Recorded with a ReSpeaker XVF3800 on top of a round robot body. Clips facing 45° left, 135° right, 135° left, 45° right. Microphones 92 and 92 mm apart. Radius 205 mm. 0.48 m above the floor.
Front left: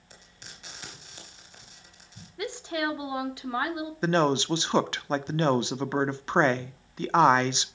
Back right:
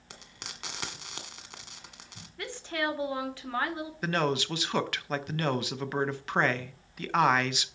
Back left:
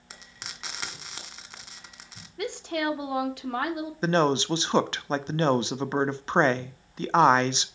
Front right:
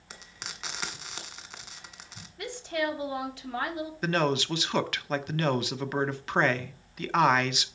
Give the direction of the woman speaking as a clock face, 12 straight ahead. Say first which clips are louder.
Front left 3 dB, back left 2 dB; 8 o'clock.